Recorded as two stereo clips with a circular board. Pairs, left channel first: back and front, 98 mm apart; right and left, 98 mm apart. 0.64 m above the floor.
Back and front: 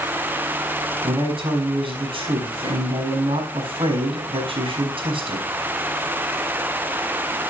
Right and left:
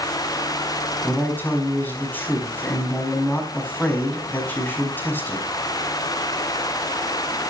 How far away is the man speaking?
About 4.5 m.